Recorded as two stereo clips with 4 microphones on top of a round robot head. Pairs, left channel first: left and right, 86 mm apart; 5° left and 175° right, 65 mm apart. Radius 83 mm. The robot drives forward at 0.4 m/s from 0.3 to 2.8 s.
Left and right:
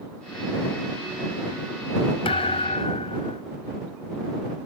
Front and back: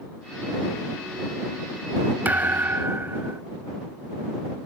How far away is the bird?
I don't hear a bird.